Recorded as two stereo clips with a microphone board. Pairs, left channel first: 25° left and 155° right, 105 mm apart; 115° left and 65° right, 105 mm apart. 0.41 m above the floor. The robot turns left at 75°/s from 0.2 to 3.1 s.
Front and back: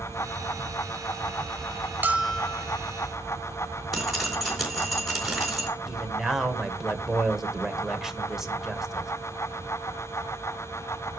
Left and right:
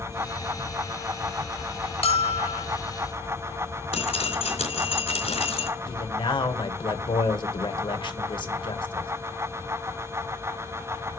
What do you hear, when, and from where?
2.0 s a bell: 130° left, 0.7 m; by 2.7 s 85° left, 0.7 m
3.9 s dripping: 115° left, 4 m
5.9 s a man speaking: 120° left, 1.6 m